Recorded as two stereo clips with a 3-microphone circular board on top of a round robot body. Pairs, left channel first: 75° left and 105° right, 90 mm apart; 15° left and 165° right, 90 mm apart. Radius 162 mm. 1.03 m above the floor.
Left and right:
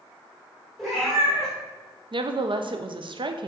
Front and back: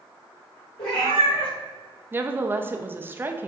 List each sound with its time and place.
0.8 s a cat meowing: 15° right, 1.2 m
2.1 s a woman speaking: 100° right, 0.6 m